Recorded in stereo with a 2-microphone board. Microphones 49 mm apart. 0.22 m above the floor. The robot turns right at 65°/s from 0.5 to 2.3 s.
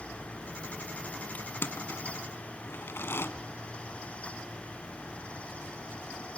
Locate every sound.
1.4 s crushing: 35° left (ahead or behind), 1.3 m; by 3.3 s 50° left (ahead or behind), 1.3 m